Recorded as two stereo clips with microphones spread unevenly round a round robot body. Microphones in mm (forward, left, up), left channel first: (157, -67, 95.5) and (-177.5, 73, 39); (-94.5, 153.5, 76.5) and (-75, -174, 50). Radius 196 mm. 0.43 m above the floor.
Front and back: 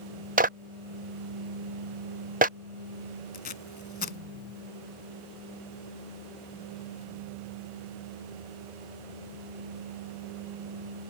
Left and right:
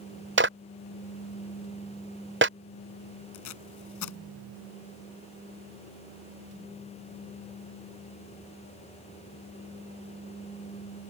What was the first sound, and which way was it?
A clap, 140° right.